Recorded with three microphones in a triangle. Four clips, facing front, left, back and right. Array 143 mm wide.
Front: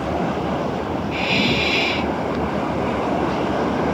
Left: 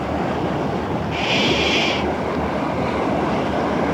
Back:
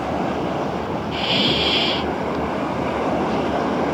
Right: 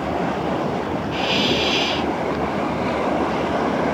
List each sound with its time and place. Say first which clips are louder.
1.1 s a hiss: left 1 dB, front 1 dB; 110° left